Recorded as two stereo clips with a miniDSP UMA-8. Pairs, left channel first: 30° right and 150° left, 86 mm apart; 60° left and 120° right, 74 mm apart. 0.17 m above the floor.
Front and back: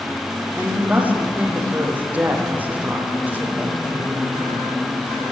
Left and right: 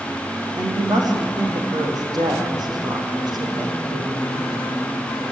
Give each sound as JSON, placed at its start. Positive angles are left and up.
{"t": 0.6, "sound": "a woman speaking", "azimuth_deg": -140, "distance_m": 6.0}